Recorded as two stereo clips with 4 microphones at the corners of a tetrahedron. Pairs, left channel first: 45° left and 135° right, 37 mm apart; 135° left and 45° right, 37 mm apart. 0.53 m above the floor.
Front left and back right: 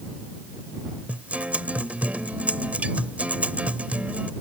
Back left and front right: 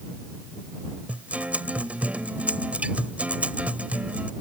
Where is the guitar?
85° right.